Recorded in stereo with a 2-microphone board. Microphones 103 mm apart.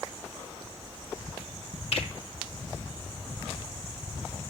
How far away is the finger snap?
About 3.5 m.